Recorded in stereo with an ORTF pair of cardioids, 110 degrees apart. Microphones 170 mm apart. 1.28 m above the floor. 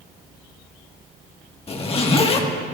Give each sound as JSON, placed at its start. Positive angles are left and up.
{"t": 1.7, "sound": "a zipper", "azimuth_deg": 35, "distance_m": 1.6}